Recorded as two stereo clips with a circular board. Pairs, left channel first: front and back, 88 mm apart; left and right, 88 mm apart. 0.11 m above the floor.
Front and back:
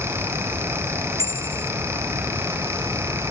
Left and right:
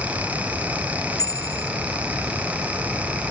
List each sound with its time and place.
1.2 s a bicycle bell: 135° left